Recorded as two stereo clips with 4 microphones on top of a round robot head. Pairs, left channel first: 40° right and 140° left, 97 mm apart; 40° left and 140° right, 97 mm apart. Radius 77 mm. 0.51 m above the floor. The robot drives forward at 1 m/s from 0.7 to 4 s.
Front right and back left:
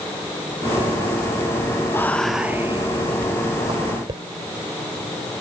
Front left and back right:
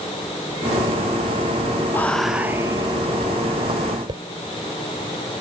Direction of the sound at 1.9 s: 5° right.